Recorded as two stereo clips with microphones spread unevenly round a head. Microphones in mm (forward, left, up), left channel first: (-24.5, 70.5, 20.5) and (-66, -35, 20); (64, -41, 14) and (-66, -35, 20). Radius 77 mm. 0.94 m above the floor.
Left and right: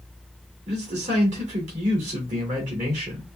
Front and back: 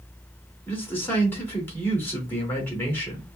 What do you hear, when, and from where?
0.7 s a man speaking: 75° right, 2 m